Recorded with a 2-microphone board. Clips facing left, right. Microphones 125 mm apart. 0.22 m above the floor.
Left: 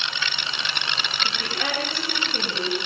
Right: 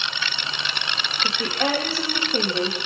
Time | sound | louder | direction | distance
1.2 | a woman speaking | right 7 dB | 35° right (ahead or behind) | 7 m